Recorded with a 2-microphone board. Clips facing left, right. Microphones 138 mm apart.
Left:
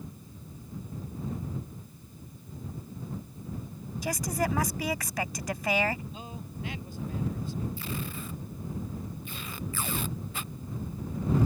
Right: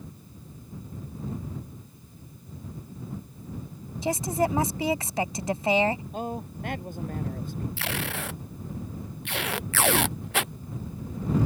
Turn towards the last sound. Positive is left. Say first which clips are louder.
# right 4 dB
turn(degrees=-85)